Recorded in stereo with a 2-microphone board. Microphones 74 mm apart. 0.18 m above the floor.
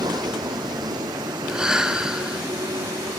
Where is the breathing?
10° right (ahead or behind).